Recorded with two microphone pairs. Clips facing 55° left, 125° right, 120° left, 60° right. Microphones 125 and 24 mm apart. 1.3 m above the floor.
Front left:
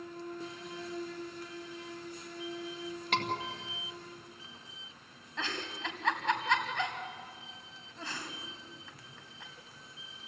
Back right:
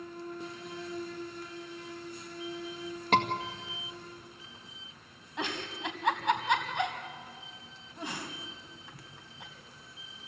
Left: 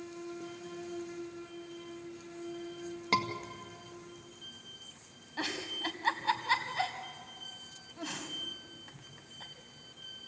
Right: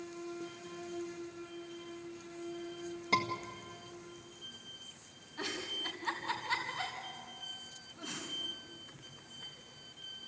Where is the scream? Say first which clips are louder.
Back right 7 dB, left 1 dB; 175° right, 1.9 m.